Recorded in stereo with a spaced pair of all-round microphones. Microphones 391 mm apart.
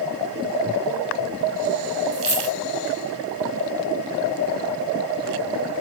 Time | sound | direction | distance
2.1 | a dropped coin | 20° right (ahead or behind) | 1.0 m